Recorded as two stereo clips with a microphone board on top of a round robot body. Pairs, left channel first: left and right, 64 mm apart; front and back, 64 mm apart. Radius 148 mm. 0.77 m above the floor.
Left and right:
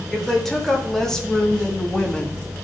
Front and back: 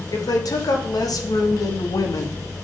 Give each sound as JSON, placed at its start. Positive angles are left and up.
{"t": 0.1, "sound": "a woman speaking", "azimuth_deg": 5, "distance_m": 2.0}